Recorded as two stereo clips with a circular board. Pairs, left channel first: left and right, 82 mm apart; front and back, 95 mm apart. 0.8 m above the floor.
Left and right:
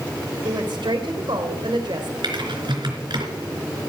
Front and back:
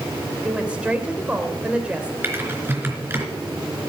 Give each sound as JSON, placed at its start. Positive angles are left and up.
{"t": 0.4, "sound": "a woman speaking", "azimuth_deg": -105, "distance_m": 2.5}
{"t": 2.2, "sound": "typing on a keyboard", "azimuth_deg": -115, "distance_m": 3.0}